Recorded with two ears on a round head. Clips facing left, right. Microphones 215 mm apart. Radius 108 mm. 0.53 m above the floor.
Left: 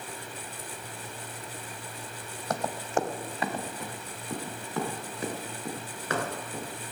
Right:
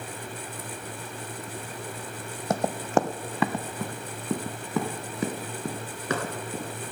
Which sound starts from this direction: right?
Running footsteps, at 2.5 s.